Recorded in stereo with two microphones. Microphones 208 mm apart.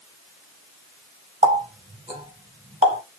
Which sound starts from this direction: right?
A running tap, at 1.4 s.